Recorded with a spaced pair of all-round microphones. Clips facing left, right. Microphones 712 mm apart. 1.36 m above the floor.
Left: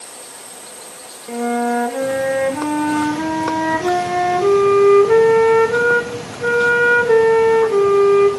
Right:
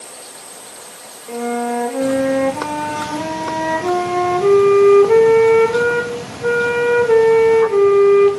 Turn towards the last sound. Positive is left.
turn(degrees=45)  # may be behind; listen again after turning